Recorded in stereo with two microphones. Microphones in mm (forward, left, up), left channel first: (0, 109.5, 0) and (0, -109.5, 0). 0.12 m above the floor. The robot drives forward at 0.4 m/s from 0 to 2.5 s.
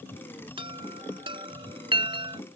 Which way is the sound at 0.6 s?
25° right (ahead or behind).